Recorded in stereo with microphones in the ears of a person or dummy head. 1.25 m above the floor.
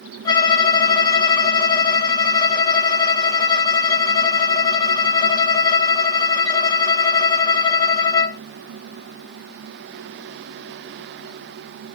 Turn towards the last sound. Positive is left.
turn(degrees=20)  # may be behind; listen again after turning